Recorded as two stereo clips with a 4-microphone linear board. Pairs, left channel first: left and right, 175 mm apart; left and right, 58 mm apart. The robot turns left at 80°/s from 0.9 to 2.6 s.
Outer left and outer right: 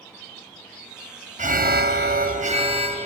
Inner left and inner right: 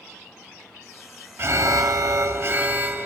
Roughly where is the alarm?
Ahead right.